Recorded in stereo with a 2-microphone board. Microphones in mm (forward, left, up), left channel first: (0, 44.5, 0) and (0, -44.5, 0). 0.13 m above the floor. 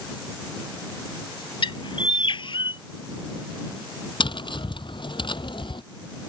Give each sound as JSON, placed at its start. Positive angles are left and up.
{"t": 1.6, "sound": "a bird", "side_deg": 65}
{"t": 4.2, "sound": "tapping", "side_deg": 60}